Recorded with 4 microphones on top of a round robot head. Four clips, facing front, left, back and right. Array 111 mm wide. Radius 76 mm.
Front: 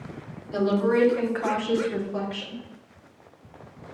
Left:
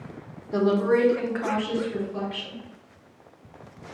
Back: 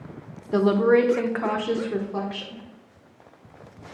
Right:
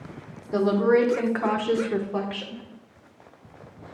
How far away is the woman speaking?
About 1.1 m.